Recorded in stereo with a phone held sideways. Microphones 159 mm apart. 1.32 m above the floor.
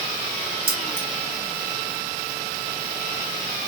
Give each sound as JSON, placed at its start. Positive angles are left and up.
{"t": 0.7, "sound": "keys jangling", "side_deg": -75, "distance_m": 3.5}